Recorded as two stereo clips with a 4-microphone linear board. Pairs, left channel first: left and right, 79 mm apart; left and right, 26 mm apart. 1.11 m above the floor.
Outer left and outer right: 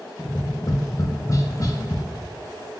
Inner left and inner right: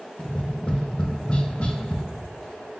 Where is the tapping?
45° left (ahead or behind), 0.5 m.